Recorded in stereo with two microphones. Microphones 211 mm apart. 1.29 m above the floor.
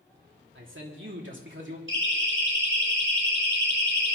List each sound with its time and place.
0.6 s a man speaking: 80° right, 3 m; by 1.8 s 70° right (ahead or behind), 3 m
1.9 s a siren: 85° right, 5.5 m; by 4.2 s 80° right, 3.5 m